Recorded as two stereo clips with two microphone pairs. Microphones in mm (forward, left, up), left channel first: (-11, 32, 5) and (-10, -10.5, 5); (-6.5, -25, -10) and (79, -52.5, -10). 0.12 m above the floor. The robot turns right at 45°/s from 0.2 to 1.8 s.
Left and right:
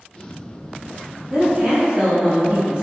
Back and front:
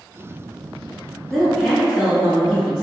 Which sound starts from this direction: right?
A woman speaking, at 1.3 s.